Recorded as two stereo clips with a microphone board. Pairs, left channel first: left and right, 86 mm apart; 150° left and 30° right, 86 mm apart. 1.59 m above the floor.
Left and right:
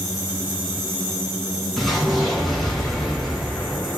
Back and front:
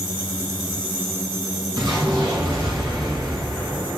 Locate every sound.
1.8 s an explosion: straight ahead, 1.5 m